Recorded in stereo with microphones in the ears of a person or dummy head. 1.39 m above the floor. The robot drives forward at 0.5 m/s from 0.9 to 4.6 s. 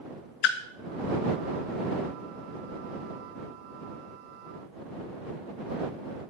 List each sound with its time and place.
0.4 s a splash: 65° left (ahead or behind), 0.6 m